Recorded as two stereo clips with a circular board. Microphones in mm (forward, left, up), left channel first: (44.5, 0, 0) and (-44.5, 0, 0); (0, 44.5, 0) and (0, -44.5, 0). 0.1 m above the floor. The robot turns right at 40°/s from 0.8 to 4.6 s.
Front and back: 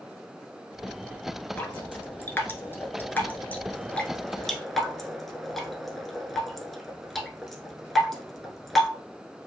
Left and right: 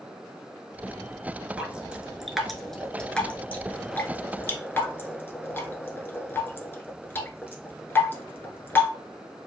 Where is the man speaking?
I don't hear a man speaking.